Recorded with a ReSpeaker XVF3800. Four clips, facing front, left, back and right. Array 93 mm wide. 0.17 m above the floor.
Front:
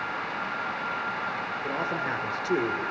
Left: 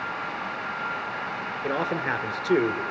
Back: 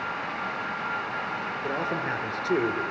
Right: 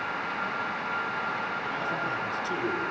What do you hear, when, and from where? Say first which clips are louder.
1.6 s a man speaking: left 4 dB, back 1 dB; 90° left, 2 m